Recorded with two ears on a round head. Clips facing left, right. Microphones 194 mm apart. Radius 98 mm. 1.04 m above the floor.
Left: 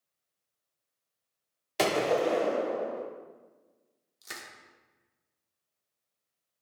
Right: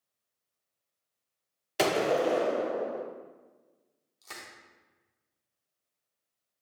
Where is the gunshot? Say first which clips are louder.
Even; 5° right (ahead or behind), 0.8 m.